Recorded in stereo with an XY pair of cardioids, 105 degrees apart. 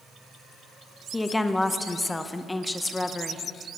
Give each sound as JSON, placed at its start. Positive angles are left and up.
{"t": 1.1, "sound": "a woman speaking", "azimuth_deg": 15, "distance_m": 0.8}